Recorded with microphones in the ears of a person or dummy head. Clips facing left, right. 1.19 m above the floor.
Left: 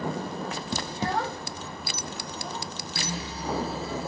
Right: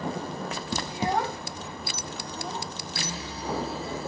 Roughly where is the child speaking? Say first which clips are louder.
Right 3 dB; centre.